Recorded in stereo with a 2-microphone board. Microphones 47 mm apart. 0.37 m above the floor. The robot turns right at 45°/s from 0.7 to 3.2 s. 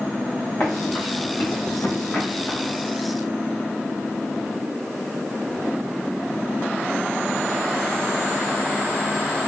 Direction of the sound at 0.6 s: 55° left (ahead or behind).